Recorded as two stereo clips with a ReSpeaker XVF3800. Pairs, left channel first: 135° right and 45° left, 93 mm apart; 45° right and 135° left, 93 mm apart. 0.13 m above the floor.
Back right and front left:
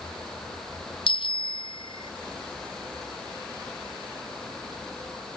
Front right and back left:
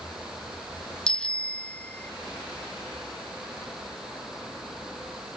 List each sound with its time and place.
1.1 s a bicycle bell: 125° right; by 2.1 s 115° right